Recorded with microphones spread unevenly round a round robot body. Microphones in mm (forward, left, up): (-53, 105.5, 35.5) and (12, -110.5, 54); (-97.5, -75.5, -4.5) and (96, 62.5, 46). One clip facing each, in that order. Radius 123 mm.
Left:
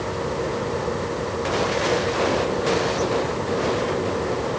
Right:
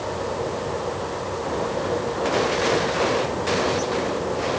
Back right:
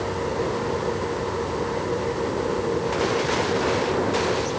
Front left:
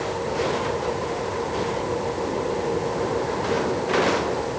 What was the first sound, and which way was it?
Only background noise.